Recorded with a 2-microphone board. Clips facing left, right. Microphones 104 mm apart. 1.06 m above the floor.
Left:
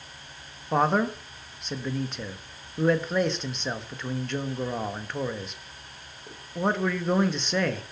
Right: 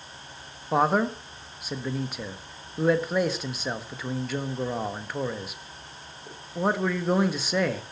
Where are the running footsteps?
I don't hear running footsteps.